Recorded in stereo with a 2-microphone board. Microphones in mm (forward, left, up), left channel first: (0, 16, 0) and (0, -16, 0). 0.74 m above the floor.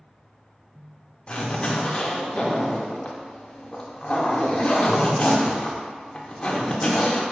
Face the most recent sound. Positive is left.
turn(degrees=30)  # may be behind; listen again after turning